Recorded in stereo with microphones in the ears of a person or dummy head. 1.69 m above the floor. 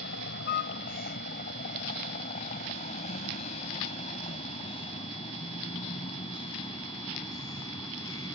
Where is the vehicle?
55° left (ahead or behind); by 8.3 s 20° left (ahead or behind).